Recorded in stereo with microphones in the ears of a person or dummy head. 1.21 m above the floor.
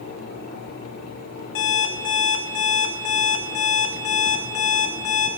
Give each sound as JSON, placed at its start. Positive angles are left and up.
{"t": 1.6, "sound": "an alarm clock", "side_deg": 65, "distance_m": 0.9}